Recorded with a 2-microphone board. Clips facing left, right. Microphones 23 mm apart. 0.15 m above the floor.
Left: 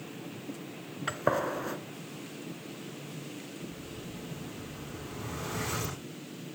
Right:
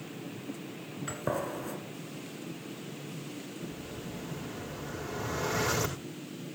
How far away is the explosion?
About 6.5 m.